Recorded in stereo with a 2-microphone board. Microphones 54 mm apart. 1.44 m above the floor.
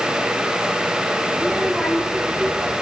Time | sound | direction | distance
1.4 | a child speaking | 10° left (ahead or behind) | 1.9 m